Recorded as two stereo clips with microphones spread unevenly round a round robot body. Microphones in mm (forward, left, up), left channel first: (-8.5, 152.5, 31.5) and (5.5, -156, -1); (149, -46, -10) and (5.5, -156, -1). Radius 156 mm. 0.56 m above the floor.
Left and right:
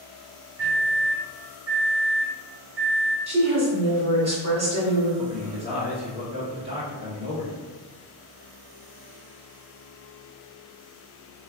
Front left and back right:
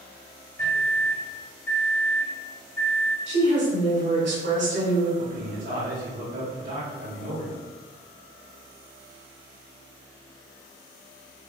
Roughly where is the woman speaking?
Behind right.